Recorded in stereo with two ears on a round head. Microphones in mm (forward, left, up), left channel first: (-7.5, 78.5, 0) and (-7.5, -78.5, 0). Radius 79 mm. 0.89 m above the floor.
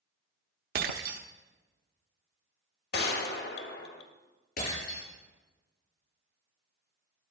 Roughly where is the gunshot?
Left.